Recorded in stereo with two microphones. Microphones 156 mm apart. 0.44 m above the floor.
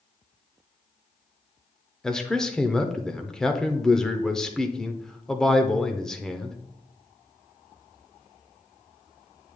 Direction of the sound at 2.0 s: 5° left (ahead or behind).